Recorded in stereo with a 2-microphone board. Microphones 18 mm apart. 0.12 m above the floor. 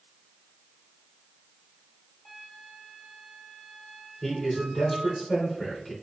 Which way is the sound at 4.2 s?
25° left (ahead or behind).